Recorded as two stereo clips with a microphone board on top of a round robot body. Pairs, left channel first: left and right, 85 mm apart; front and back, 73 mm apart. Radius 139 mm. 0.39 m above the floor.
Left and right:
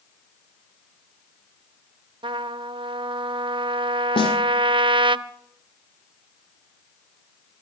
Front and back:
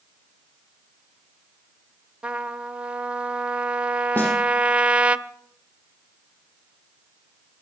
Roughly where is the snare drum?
Left.